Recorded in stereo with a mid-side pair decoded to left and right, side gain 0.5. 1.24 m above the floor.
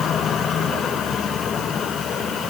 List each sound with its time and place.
Only background noise.